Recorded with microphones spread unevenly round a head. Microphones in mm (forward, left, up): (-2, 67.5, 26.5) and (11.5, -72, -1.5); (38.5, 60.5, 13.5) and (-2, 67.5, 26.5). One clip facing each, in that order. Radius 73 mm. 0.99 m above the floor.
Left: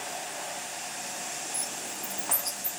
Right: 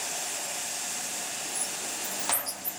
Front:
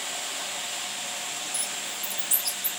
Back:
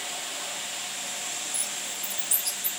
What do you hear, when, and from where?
1.5 s a bird: 100° left, 3.5 m